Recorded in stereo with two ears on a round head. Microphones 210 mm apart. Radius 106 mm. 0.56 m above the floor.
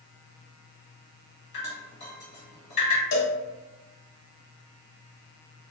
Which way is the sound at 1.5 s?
45° left (ahead or behind).